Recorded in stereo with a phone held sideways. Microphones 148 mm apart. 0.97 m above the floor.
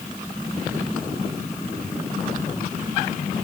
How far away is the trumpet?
I don't hear a trumpet.